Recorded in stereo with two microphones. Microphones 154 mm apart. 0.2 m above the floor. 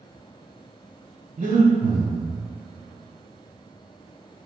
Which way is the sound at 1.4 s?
60° right (ahead or behind).